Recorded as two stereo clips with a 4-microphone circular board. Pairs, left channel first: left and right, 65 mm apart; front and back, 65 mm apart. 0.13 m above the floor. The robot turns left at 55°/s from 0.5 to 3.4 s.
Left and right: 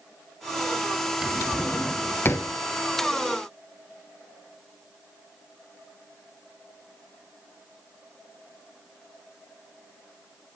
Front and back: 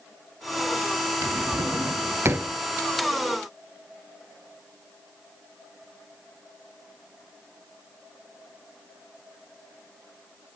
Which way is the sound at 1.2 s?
165° right.